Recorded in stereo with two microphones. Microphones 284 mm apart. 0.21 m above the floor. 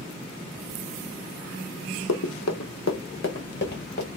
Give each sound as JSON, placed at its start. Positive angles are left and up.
{"t": 2.1, "sound": "running footsteps", "side_deg": 75, "distance_m": 0.6}